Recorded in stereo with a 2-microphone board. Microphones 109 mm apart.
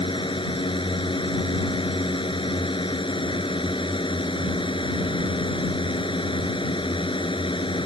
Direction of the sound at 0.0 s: 50° left (ahead or behind).